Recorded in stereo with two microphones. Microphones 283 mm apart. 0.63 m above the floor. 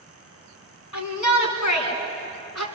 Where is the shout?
85° left, 5 m; by 2.7 s 70° left (ahead or behind), 5.5 m.